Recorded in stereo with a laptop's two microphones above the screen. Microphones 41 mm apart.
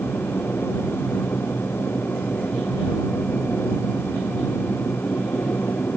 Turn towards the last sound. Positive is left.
turn(degrees=65)  # may be behind; listen again after turning